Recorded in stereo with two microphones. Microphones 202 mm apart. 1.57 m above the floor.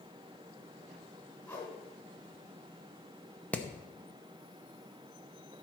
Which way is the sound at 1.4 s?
5° left (ahead or behind).